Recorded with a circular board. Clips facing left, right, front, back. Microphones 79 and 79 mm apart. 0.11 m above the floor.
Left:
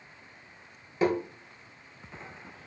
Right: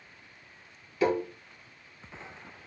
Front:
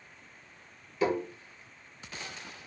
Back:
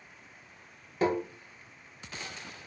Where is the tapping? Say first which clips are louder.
Even, back 1 dB; 145° left, 1.3 m.